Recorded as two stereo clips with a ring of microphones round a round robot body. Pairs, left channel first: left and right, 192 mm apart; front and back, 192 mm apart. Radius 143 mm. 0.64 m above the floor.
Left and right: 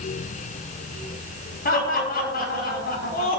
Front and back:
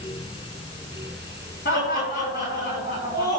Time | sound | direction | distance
1.6 | laughter | 50° left | 5 m